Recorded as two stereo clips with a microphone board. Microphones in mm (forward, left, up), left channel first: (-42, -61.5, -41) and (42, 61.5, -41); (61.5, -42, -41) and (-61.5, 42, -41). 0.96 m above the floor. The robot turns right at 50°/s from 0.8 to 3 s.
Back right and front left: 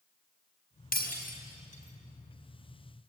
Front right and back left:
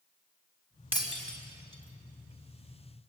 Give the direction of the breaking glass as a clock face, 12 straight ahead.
5 o'clock.